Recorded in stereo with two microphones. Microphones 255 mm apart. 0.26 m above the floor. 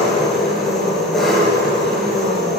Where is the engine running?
Centre (ahead or behind), 4 m.